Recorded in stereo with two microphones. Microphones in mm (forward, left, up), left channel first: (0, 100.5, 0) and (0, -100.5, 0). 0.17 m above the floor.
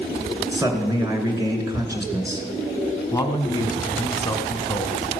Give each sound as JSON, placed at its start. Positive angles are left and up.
{"t": 0.5, "sound": "a man speaking", "side_deg": -15, "distance_m": 2.0}
{"t": 3.1, "sound": "a man speaking", "side_deg": 20, "distance_m": 1.0}